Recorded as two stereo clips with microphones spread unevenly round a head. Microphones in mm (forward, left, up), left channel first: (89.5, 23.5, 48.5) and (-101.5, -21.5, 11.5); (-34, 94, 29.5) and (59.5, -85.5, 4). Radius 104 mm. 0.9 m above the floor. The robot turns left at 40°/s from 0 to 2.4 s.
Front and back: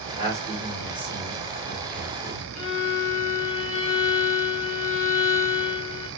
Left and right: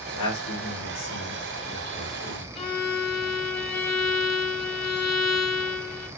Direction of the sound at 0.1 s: 135° left.